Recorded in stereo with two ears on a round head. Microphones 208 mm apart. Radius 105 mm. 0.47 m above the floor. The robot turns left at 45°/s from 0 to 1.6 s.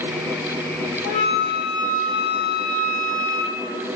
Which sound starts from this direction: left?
A flute, at 1.0 s.